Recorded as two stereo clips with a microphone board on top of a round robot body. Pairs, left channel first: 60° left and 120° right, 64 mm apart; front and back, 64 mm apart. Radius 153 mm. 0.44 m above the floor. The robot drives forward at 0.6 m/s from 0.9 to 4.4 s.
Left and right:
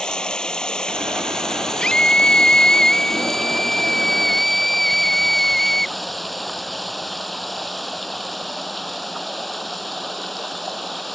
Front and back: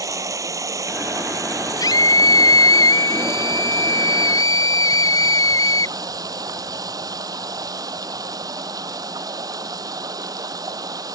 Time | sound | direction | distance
0.0 | running water | 140° left | ?
1.8 | a scream | 15° right | ?